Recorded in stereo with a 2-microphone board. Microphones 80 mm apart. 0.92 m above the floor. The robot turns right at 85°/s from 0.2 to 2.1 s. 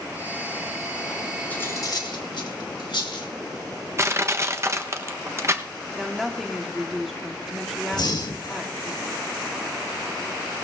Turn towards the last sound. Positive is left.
turn(degrees=60)  # may be behind; listen again after turning